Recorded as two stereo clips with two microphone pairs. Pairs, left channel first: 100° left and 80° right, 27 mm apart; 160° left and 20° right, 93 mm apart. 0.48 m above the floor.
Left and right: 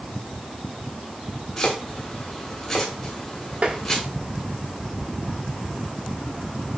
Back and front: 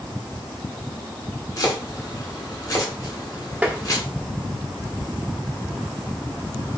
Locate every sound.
1.6 s chopping: 165° left, 1.7 m
3.6 s tapping: 85° right, 1.0 m